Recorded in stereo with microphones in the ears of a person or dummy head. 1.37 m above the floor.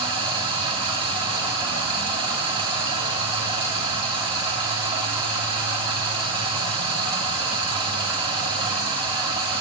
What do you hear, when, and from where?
0.0 s running water: 25° right (ahead or behind), 2.0 m